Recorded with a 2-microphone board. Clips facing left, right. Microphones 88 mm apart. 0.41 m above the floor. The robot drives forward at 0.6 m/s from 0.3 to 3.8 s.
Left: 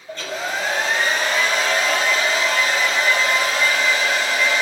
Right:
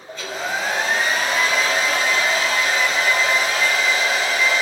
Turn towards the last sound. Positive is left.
turn(degrees=0)  # may be behind; listen again after turning